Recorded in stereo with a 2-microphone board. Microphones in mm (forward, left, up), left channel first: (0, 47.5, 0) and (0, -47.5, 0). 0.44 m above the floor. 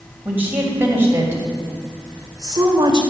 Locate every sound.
0.2 s a woman speaking: 20° right (ahead or behind), 3 m; by 3.0 s 45° right (ahead or behind), 2 m